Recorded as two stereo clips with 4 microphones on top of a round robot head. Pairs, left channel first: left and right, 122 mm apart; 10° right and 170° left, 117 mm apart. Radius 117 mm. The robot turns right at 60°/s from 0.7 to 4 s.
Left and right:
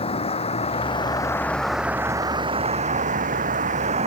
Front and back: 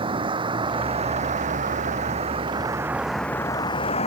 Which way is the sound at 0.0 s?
125° left.